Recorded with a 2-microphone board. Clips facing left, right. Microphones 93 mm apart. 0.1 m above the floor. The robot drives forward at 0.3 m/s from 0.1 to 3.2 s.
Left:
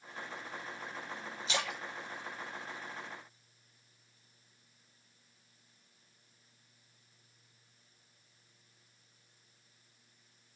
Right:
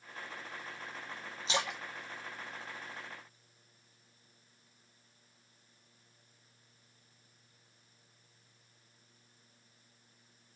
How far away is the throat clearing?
I don't hear throat clearing.